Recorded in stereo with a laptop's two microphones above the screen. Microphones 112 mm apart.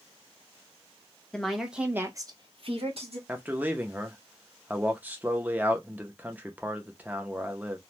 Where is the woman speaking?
5° left (ahead or behind), 1.1 m; by 3.2 s 65° right (ahead or behind), 1.1 m.